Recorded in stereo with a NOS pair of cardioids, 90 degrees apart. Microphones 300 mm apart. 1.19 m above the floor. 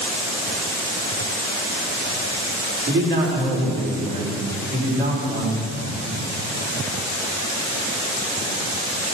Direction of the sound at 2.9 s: 40° right.